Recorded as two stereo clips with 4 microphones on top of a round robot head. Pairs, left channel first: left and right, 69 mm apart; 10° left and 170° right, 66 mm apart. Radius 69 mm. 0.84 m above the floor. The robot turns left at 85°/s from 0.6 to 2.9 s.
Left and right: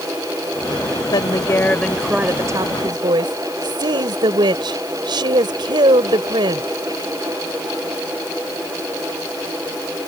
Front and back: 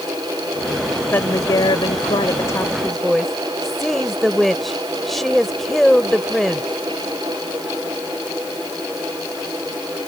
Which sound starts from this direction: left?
A woman speaking, at 1.1 s.